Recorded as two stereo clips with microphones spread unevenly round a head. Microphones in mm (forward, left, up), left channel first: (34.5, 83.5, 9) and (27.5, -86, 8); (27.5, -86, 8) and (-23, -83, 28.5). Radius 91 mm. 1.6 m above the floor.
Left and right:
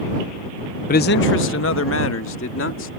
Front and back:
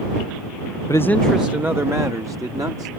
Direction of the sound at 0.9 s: 65° left.